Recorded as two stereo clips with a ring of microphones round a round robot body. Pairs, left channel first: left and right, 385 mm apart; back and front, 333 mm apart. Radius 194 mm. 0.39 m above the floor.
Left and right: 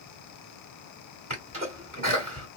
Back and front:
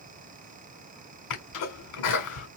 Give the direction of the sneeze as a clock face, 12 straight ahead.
5 o'clock.